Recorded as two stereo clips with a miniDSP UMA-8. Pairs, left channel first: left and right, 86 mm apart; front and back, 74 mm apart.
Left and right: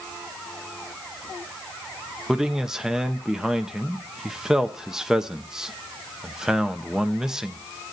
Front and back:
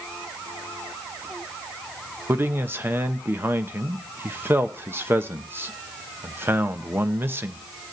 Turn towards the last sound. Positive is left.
turn(degrees=-165)